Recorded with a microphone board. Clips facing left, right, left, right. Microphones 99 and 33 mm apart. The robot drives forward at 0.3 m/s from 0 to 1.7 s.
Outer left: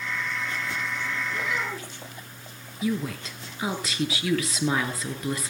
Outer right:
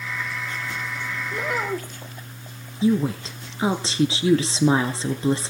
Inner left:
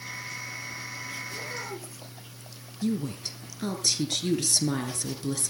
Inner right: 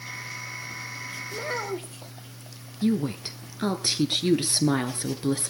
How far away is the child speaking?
About 2.5 m.